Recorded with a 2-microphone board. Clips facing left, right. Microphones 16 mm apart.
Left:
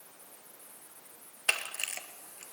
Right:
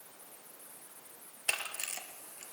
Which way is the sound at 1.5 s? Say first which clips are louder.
Left 4 dB; 35° left (ahead or behind).